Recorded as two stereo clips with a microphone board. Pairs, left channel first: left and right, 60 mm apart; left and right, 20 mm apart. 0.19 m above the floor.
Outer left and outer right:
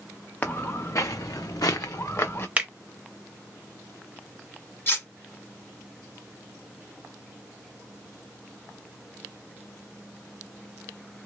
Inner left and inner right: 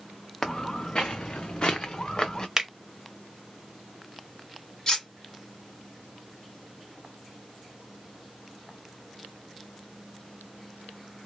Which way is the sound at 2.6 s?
20° right (ahead or behind).